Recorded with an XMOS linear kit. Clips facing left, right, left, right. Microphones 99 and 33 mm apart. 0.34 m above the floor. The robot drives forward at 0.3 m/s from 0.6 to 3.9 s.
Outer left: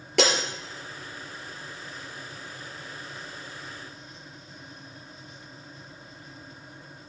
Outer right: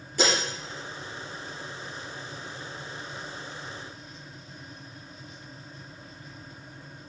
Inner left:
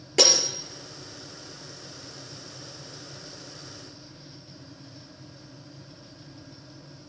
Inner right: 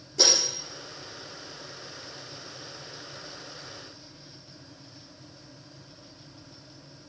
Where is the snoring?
No snoring in this recording.